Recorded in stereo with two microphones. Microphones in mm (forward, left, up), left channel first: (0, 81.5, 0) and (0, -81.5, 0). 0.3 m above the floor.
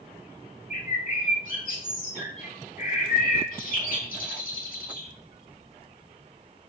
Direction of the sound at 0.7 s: 60° left (ahead or behind).